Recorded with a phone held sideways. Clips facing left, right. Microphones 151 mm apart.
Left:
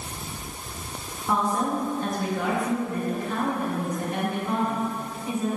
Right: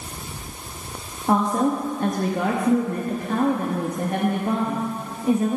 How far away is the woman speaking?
About 0.9 m.